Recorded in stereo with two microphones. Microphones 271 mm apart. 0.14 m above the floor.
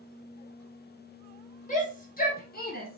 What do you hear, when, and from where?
1.7 s a shout: 30° left (ahead or behind), 2.5 m; by 3.0 s 35° left (ahead or behind), 1.4 m